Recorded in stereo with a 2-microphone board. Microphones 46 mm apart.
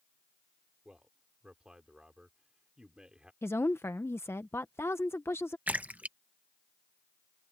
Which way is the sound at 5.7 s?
35° right (ahead or behind).